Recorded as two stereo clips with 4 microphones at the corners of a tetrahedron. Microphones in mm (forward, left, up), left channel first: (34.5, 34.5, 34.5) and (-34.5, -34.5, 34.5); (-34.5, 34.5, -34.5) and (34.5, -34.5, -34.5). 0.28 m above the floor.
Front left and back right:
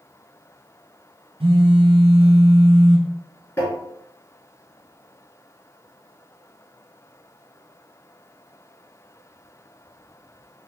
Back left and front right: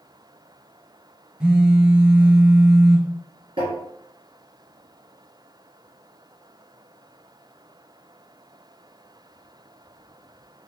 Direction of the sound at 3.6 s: 15° right.